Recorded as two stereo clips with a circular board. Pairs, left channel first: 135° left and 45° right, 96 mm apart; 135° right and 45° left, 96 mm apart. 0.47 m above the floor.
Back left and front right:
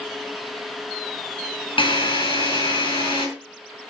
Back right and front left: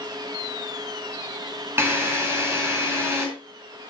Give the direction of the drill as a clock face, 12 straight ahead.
8 o'clock.